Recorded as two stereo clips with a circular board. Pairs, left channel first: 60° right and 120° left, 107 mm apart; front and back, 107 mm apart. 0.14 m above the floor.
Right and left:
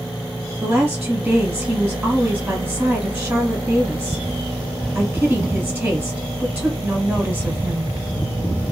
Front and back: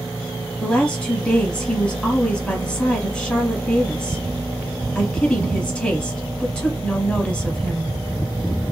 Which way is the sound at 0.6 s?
70° left.